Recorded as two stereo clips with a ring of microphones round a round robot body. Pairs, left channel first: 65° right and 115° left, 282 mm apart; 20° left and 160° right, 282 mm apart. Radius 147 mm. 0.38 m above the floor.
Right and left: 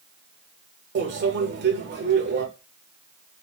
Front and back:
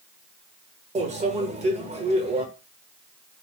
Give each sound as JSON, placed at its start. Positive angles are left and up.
{"t": 0.9, "sound": "a microwave", "azimuth_deg": 145, "distance_m": 1.1}